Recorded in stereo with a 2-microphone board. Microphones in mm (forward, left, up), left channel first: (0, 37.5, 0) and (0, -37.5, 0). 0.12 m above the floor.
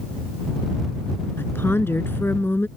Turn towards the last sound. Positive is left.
turn(degrees=30)  # may be behind; listen again after turning